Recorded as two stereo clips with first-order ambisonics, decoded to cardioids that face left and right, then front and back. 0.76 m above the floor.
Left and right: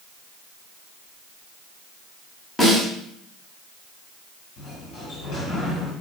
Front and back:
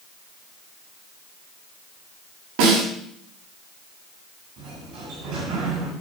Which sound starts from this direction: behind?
A snare drum, at 2.6 s.